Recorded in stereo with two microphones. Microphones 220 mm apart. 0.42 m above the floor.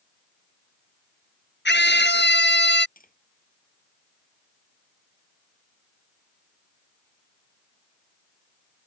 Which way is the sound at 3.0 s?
40° left (ahead or behind).